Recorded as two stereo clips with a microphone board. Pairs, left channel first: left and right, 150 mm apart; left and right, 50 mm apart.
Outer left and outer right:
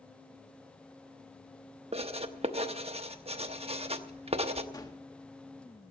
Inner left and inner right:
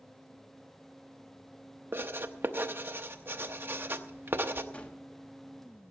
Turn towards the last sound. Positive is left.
turn(degrees=25)  # may be behind; listen again after turning